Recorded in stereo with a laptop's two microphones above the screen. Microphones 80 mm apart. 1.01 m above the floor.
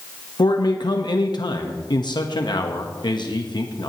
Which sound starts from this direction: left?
A man speaking, at 0.4 s.